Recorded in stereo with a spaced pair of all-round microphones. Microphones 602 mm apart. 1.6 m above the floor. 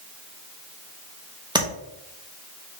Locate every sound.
1.6 s tapping: 5° right (ahead or behind), 1.0 m